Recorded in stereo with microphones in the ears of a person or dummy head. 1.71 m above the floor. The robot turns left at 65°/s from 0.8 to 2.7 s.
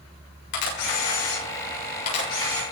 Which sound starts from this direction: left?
A camera shutter, at 0.5 s.